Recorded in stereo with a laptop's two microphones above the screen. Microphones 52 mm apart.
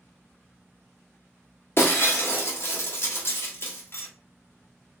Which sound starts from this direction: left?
Breaking glass, at 1.8 s.